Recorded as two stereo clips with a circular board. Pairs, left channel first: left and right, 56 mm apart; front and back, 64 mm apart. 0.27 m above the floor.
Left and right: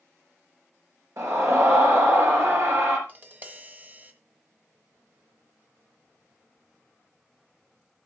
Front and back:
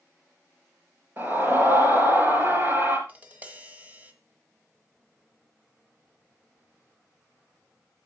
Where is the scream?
120° right, 4 m.